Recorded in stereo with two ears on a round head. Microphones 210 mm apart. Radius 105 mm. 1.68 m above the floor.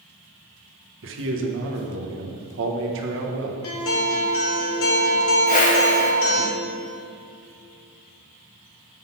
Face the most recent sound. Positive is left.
turn(degrees=35)  # may be behind; listen again after turning